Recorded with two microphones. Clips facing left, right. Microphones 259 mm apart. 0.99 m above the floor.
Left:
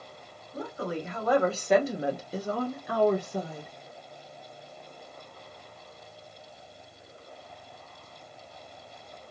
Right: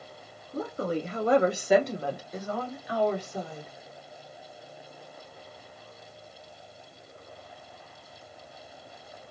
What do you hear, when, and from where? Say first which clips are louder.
0.5 s a woman speaking: right 4 dB; 50° right (ahead or behind), 1.0 m; by 3.7 s 65° left (ahead or behind), 1.2 m